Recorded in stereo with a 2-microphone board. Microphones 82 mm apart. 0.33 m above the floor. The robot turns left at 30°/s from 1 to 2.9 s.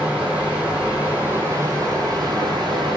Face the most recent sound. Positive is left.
turn(degrees=-75)